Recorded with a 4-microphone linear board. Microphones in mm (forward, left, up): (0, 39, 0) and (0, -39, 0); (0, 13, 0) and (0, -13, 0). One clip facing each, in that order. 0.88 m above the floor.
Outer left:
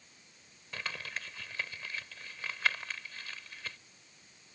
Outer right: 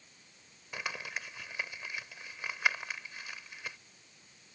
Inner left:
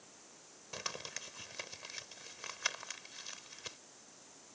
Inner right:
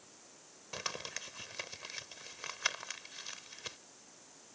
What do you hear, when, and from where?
0.7 s crumpling: 15° right (ahead or behind)